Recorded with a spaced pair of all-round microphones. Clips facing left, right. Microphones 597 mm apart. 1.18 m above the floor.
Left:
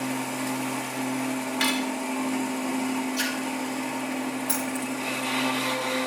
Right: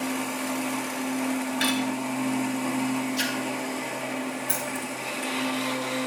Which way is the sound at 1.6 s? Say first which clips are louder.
Even; 30° left (ahead or behind).